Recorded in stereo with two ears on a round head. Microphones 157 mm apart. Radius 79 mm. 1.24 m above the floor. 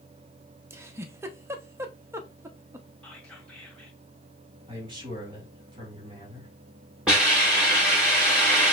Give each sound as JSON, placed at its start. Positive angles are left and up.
{"t": 0.7, "sound": "a giggle", "side_deg": -15, "distance_m": 0.6}
{"t": 3.0, "sound": "whispering", "side_deg": 5, "distance_m": 1.7}
{"t": 4.7, "sound": "a man speaking", "side_deg": -25, "distance_m": 3.5}
{"t": 7.1, "sound": "a hiss", "side_deg": -5, "distance_m": 3.0}